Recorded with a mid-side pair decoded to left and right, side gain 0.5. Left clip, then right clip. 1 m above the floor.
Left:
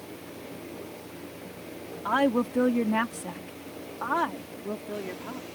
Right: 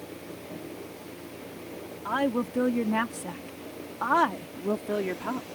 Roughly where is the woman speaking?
Ahead left.